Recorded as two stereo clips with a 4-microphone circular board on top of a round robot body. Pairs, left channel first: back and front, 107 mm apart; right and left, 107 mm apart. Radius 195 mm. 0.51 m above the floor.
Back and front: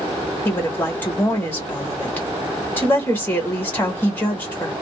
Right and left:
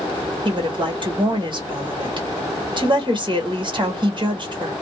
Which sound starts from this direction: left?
A woman speaking, at 0.5 s.